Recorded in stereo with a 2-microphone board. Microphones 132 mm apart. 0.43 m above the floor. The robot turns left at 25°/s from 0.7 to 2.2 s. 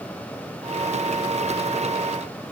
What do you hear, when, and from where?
Only background noise.